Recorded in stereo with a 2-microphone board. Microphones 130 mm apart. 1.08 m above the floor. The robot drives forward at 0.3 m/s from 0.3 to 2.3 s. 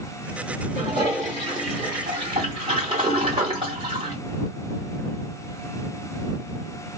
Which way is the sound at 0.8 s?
45° right (ahead or behind).